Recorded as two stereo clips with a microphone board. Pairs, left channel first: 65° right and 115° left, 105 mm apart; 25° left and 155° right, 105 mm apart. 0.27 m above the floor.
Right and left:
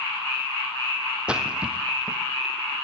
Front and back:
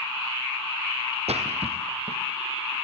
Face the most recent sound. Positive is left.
turn(degrees=-165)